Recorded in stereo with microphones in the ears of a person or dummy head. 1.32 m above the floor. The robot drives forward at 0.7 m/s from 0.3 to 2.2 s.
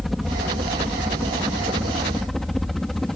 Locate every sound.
0.0 s a helicopter: centre (ahead or behind)